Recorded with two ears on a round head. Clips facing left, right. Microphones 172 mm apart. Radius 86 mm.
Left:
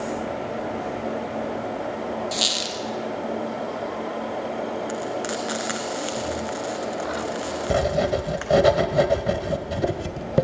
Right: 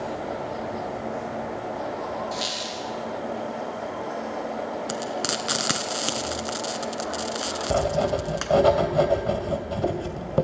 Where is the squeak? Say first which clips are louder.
Left 2 dB; 65° left (ahead or behind), 3.5 m.